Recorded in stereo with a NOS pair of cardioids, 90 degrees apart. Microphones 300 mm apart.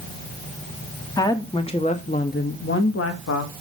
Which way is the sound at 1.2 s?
10° left.